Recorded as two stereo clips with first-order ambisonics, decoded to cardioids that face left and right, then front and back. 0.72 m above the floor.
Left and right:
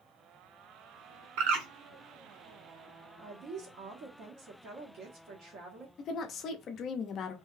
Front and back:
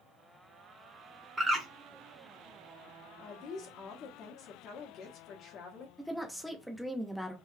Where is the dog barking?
I don't hear a dog barking.